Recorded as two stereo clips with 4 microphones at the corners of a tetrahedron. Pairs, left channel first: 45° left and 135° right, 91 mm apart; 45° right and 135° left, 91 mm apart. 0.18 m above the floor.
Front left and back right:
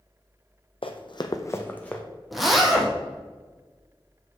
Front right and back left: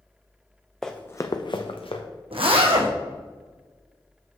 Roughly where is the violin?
I don't hear a violin.